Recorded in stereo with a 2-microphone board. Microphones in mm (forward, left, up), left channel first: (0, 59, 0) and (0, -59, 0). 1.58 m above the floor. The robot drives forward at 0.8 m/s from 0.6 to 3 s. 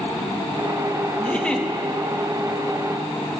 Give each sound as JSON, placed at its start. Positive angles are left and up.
{"t": 1.2, "sound": "a giggle", "side_deg": 10, "distance_m": 2.0}